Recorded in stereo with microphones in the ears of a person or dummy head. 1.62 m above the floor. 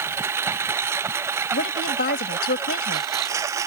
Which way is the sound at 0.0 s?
20° right (ahead or behind).